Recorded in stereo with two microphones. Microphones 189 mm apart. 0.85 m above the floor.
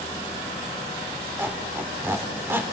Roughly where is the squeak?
Centre.